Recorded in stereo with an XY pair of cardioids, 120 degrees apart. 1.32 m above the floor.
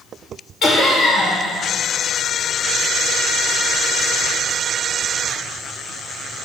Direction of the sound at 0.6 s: 45° left.